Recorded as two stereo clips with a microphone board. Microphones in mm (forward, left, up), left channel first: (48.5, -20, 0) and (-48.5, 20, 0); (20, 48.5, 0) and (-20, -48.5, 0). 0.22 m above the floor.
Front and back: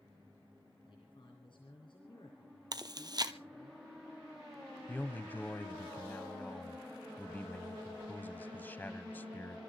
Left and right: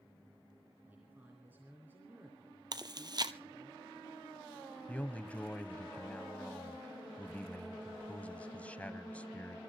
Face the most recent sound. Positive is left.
turn(degrees=15)